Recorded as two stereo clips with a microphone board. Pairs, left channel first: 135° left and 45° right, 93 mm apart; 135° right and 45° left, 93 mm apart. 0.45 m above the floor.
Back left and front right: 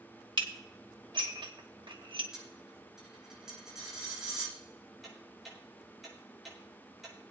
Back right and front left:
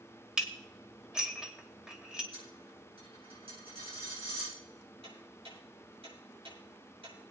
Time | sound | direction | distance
0.4 | dishes clattering | 35° right | 1.2 m
2.3 | a dropped coin | 40° left | 6 m
5.0 | ticking | 45° left | 5.5 m